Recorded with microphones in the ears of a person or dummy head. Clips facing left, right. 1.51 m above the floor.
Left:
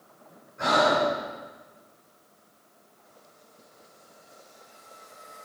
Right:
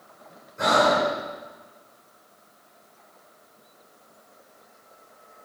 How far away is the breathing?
About 5.5 m.